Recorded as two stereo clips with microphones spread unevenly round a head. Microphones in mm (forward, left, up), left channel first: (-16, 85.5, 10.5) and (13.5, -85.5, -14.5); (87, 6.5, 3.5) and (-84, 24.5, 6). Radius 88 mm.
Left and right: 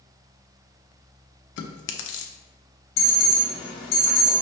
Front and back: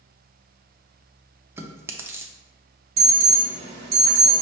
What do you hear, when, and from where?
1.6 s chewing: 100° left, 0.6 m
3.0 s an alarm: 150° left, 1.2 m